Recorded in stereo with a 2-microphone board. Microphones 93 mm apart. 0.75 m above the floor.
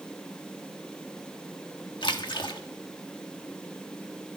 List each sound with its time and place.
2.0 s a splash: 55° left (ahead or behind), 1.2 m